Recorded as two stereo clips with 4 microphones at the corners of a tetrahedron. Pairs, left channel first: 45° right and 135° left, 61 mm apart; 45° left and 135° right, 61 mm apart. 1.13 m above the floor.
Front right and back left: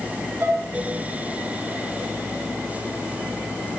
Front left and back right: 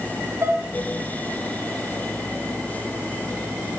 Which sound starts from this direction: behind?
Dishes clattering, at 0.4 s.